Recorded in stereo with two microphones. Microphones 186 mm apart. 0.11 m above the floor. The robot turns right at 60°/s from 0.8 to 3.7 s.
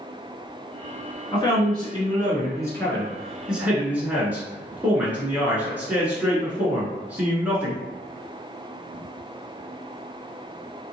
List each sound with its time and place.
1.3 s a man speaking: 20° left (ahead or behind), 1.3 m; by 7.8 s 10° right (ahead or behind), 1.3 m